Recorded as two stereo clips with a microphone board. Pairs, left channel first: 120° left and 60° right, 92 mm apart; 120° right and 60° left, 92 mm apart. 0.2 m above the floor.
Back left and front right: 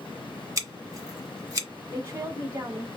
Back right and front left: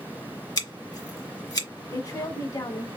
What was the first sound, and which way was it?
Scissors, 100° right.